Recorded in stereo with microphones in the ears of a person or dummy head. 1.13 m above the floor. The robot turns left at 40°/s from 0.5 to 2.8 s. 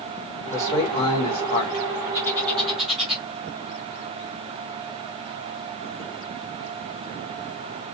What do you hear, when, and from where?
0.5 s a man speaking: 170° left, 0.9 m; by 1.9 s 115° left, 0.9 m
2.1 s a bird: 20° left (ahead or behind), 0.9 m; by 3.2 s centre (ahead or behind), 0.9 m